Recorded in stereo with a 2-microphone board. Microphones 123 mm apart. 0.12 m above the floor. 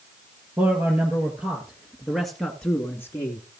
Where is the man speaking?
15° right (ahead or behind), 2.5 m; by 3.4 s 25° left (ahead or behind), 1.3 m.